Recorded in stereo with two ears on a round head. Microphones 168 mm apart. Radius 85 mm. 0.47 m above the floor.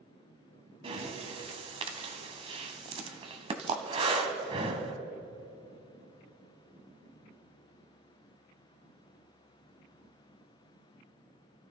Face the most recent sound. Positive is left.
turn(degrees=-30)  # may be behind; listen again after turning